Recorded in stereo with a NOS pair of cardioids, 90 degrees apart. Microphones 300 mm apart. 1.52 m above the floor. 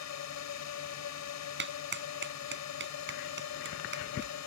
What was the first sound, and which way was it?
A drone, 65° left.